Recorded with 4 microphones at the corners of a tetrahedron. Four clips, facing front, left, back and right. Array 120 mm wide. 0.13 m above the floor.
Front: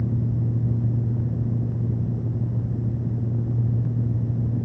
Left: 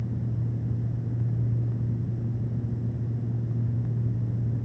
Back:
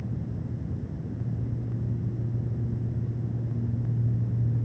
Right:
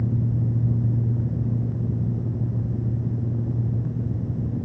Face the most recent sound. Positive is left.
No sound to turn to.